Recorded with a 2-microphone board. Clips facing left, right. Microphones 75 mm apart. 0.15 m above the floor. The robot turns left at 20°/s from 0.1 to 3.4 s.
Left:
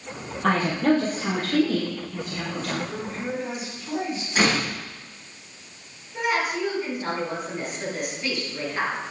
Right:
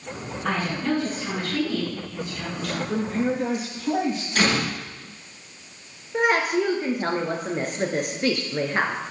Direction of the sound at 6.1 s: 55° right (ahead or behind).